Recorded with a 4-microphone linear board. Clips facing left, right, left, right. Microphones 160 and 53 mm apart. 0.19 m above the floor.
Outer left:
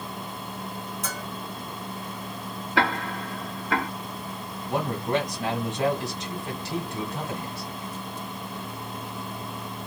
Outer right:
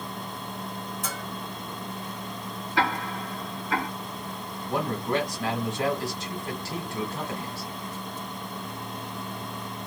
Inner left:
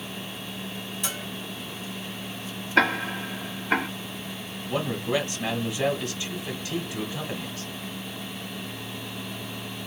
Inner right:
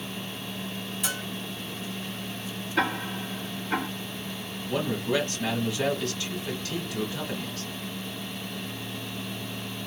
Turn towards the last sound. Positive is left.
turn(degrees=20)  # may be behind; listen again after turning